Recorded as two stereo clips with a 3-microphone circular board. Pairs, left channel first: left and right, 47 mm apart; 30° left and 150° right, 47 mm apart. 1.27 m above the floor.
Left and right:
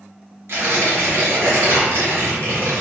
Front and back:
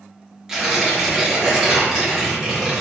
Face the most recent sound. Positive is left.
turn(degrees=-75)